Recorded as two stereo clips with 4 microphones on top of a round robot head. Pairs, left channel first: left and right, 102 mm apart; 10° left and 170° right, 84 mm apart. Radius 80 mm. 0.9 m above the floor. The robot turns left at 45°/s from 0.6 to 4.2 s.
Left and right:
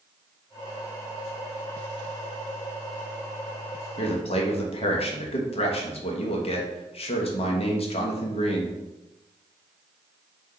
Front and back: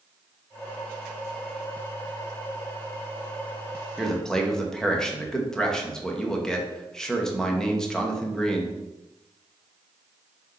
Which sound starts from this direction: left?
A man speaking, at 4.0 s.